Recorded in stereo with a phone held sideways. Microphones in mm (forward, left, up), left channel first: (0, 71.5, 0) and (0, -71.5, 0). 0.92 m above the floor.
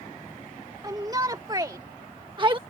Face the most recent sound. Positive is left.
turn(degrees=-35)  # may be behind; listen again after turning